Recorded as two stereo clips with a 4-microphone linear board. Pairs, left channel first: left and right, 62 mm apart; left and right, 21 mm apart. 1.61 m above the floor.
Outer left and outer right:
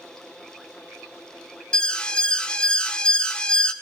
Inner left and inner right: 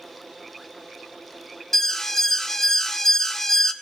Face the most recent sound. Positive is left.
turn(degrees=15)  # may be behind; listen again after turning